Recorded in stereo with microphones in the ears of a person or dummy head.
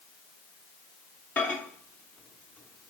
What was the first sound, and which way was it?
A microwave, 10° left (ahead or behind).